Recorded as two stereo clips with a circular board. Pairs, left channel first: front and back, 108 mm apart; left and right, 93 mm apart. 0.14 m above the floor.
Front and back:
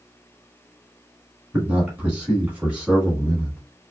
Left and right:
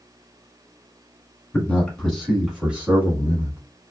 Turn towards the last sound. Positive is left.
turn(degrees=-105)